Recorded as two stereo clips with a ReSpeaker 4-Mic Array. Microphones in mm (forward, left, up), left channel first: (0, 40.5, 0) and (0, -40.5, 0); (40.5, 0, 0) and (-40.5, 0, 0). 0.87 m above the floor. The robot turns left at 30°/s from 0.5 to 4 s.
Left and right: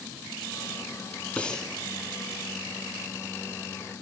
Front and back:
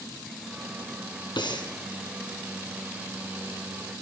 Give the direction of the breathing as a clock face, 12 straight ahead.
11 o'clock.